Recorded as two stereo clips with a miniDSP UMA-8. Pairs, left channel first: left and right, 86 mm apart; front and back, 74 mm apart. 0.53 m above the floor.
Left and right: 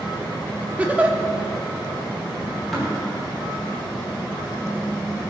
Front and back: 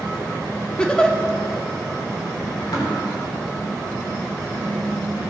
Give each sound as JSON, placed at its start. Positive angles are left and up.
{"t": 0.8, "sound": "a giggle", "azimuth_deg": -55, "distance_m": 0.7}
{"t": 2.7, "sound": "tapping", "azimuth_deg": 0, "distance_m": 3.5}